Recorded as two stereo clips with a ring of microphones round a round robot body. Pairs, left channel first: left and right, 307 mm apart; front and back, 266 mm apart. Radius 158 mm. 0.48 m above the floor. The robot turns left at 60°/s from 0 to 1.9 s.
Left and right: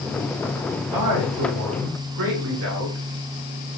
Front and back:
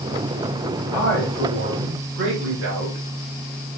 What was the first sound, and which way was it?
A man speaking, 75° right.